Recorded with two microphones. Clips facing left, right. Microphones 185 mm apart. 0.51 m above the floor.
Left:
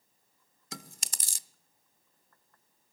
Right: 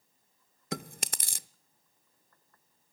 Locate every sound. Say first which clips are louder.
0.7 s chewing: right 9 dB; 65° right (ahead or behind), 0.6 m